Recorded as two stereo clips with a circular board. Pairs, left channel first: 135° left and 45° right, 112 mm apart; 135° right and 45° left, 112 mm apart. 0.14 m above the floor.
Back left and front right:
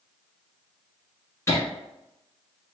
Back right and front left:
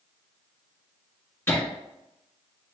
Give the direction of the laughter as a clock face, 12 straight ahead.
6 o'clock.